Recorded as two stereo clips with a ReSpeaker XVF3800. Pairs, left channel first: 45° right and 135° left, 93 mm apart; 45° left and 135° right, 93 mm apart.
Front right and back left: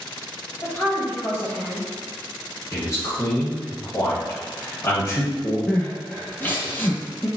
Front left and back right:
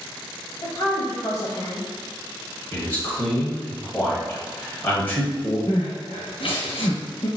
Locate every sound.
0.6 s a woman speaking: 5° left, 1.2 m
2.7 s a man speaking: 15° right, 1.6 m
5.7 s crying: 25° left, 1.3 m